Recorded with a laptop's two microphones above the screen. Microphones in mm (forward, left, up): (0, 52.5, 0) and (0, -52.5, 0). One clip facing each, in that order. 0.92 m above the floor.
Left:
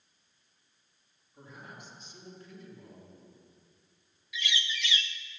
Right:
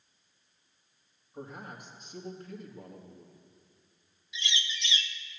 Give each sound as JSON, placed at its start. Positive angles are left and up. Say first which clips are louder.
{"t": 1.3, "sound": "a man speaking", "louder": "right 6 dB", "side_deg": -50, "distance_m": 1.7}
{"t": 4.3, "sound": "a bird", "louder": "left 2 dB", "side_deg": -25, "distance_m": 0.5}